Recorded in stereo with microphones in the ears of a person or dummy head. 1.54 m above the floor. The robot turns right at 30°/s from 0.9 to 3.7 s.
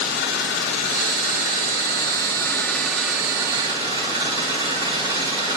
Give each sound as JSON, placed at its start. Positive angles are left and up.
{"t": 0.0, "sound": "an engine running", "azimuth_deg": 125, "distance_m": 3.0}